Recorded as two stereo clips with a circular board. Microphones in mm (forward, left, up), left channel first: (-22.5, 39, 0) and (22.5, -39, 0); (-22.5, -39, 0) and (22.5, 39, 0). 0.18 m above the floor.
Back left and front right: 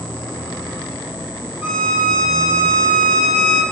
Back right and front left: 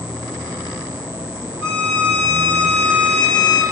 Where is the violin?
115° left, 5 m.